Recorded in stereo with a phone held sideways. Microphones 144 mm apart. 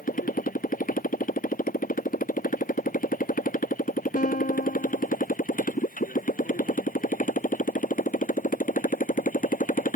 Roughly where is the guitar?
Left.